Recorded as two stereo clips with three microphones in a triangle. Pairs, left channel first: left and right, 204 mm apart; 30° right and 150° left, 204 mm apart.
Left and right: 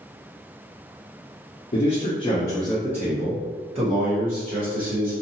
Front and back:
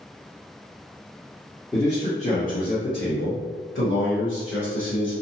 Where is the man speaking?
45° left, 0.7 m; by 5.1 s 50° right, 1.5 m.